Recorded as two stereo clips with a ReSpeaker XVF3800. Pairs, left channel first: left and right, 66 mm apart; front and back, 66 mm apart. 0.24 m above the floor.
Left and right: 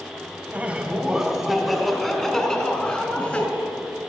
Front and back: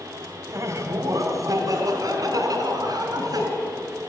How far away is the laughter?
About 1.6 m.